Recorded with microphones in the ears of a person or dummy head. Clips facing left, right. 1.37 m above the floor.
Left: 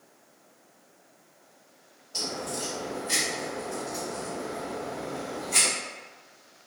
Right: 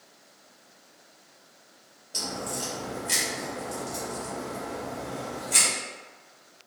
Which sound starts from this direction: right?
A crack, at 2.1 s.